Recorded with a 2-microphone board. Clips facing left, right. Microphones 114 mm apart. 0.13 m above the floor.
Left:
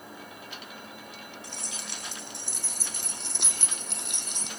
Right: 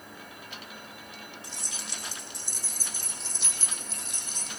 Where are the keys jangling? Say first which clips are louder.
Left 1 dB; 60° left (ahead or behind), 4.5 m; by 4.5 s 75° left (ahead or behind), 3 m.